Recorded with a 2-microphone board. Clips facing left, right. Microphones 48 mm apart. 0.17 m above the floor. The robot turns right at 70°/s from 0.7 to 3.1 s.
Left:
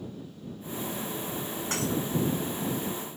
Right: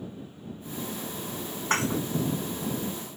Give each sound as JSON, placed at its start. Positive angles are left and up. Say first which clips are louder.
{"t": 1.7, "sound": "dishes clattering", "louder": "right 4 dB", "side_deg": -45}